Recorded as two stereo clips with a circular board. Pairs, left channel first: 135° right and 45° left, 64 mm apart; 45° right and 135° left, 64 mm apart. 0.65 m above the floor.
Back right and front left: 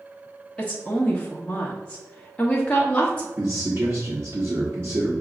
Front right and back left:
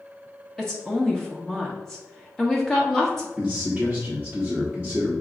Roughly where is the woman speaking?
Behind right.